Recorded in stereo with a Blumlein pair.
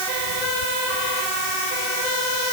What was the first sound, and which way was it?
Only background noise.